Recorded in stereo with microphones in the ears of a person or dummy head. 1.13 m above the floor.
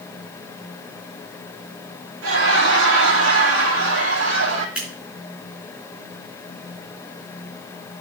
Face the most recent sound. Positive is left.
turn(degrees=-5)  # may be behind; listen again after turning